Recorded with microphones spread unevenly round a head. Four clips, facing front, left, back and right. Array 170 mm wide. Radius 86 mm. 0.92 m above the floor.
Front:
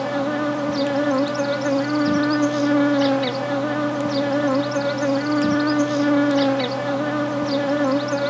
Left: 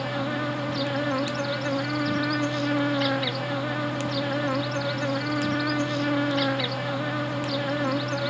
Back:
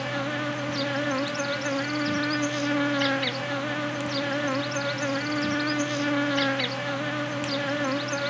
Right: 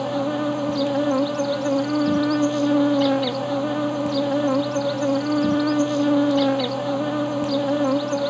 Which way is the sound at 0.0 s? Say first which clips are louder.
Right 6 dB, front 8 dB; 40° right.